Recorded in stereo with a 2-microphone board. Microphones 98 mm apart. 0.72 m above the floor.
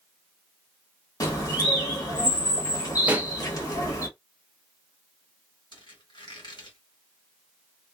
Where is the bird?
40° left (ahead or behind), 1.3 m.